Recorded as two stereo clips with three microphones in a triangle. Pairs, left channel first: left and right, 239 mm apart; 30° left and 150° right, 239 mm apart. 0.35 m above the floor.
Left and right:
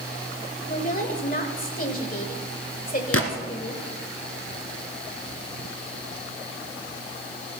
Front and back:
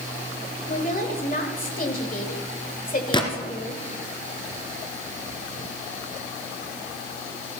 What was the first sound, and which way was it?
A woman speaking, 60° left.